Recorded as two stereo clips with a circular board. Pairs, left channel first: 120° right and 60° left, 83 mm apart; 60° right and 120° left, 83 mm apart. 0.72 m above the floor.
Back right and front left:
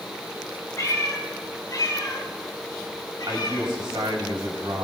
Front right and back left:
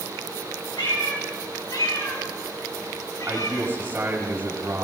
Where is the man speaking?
60° left, 4 m.